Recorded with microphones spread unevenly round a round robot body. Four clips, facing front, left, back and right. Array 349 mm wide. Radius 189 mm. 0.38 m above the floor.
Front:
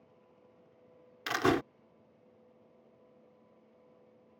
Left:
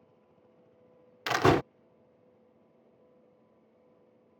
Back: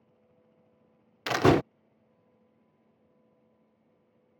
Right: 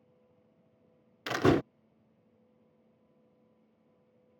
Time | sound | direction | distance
1.3 | a door slam | 160° left | ?